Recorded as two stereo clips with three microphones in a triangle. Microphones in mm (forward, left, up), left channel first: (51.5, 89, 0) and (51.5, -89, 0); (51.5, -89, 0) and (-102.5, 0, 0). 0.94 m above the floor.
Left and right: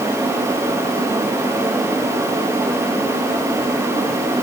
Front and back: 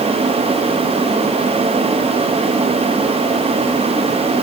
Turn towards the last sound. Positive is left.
No sound to turn to.